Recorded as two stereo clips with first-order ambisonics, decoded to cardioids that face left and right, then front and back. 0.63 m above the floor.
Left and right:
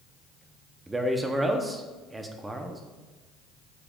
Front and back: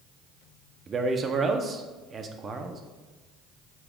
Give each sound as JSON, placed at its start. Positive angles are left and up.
{"t": 0.9, "sound": "a man speaking", "azimuth_deg": -155, "distance_m": 0.6}